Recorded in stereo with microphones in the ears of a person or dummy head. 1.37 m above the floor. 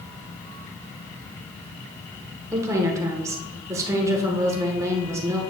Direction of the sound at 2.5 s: 15° right (ahead or behind).